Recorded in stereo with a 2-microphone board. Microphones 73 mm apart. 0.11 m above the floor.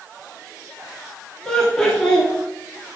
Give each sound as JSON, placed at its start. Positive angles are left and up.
{"t": 1.4, "sound": "laughter", "side_deg": 5, "distance_m": 1.9}